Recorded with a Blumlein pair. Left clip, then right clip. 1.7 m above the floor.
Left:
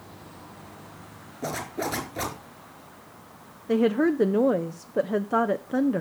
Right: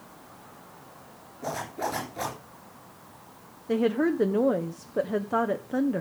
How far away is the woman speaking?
About 0.6 m.